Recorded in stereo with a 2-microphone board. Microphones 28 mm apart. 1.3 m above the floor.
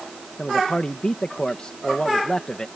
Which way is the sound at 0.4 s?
35° left (ahead or behind).